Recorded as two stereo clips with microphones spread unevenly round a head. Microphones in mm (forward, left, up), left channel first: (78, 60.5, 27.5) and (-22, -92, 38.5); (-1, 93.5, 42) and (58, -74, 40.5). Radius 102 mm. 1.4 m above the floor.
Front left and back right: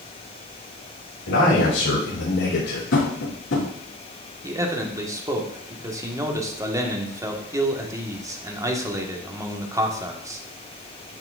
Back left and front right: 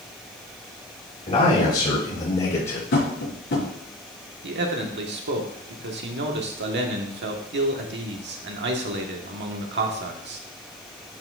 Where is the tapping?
85° left, 5 m.